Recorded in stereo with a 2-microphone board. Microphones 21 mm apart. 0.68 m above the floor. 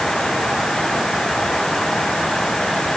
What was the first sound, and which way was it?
Only background noise.